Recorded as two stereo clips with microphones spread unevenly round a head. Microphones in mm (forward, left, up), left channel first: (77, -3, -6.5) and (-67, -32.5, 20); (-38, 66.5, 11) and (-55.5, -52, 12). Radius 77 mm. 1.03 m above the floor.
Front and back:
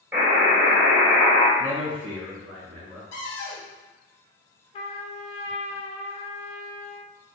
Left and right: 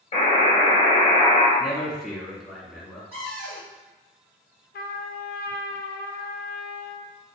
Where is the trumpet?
65° left, 0.5 m.